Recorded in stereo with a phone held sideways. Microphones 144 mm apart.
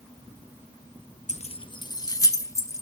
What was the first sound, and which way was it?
Keys jangling, 60° left (ahead or behind).